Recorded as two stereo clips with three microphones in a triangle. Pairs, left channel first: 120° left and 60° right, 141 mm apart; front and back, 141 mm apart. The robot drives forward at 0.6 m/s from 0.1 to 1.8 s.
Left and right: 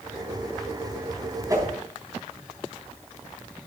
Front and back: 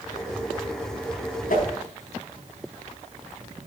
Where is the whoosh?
5° left, 3.5 m.